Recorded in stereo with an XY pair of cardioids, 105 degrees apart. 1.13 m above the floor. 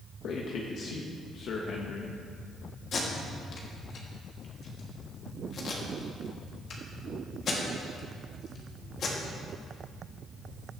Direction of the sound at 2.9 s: 55° left.